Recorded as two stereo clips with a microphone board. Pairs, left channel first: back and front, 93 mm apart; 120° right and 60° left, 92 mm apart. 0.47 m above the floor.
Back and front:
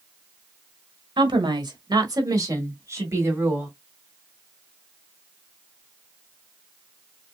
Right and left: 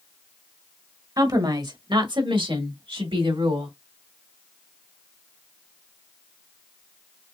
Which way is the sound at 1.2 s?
20° left.